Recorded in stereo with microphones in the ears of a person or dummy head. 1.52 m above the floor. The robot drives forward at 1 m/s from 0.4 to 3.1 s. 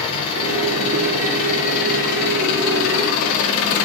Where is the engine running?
35° left (ahead or behind), 4 m; by 3.9 s 75° left (ahead or behind), 2 m.